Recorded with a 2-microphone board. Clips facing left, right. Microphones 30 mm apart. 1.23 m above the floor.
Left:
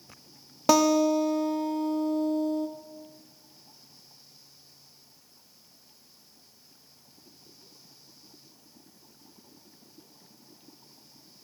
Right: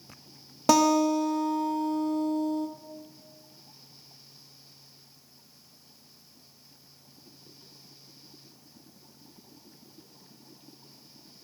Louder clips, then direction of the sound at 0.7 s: Even; 5° left (ahead or behind).